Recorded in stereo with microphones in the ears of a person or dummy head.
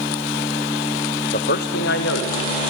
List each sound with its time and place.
1.3 s a man speaking: 40° left (ahead or behind), 0.5 m; by 2.7 s 70° left (ahead or behind), 2.5 m